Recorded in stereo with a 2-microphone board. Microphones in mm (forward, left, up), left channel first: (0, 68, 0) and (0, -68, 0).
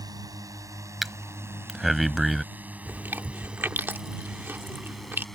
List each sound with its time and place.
0.0 s a drone: 30° right (ahead or behind); by 5.3 s centre (ahead or behind)
1.0 s breathing: centre (ahead or behind)
2.9 s chewing: 15° right (ahead or behind)